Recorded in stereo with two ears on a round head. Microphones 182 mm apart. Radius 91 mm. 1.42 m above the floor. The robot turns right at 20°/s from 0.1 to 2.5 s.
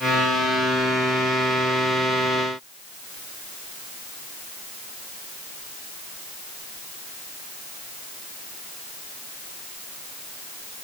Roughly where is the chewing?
No chewing in this recording.